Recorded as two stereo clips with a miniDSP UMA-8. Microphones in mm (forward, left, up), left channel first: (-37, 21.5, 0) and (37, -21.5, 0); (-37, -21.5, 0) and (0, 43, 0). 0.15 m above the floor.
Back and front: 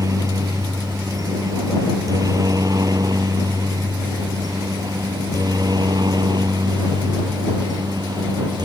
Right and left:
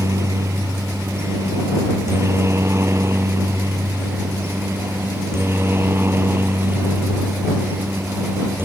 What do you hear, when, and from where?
0.0 s a helicopter: 15° left; by 8.7 s straight ahead